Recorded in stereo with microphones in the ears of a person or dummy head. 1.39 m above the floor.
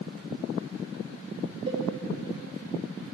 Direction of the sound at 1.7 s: 35° right (ahead or behind).